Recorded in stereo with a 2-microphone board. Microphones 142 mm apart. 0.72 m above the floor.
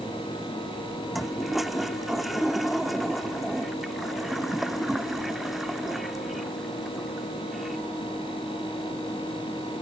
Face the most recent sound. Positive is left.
turn(degrees=0)  # may be behind; listen again after turning